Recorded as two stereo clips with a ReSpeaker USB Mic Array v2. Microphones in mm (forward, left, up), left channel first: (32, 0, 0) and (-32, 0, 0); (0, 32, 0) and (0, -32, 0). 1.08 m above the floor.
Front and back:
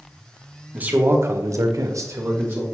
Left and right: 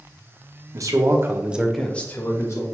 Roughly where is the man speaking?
Behind right.